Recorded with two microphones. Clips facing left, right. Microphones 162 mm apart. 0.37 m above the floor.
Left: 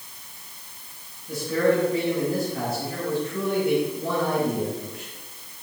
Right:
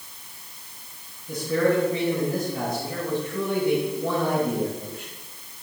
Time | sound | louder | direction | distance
1.3 | a man speaking | even | 25° right (ahead or behind) | 5.5 m